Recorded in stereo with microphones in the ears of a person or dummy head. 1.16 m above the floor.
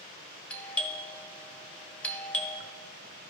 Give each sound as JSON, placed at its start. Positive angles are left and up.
{"t": 0.5, "sound": "a doorbell", "side_deg": 10, "distance_m": 0.7}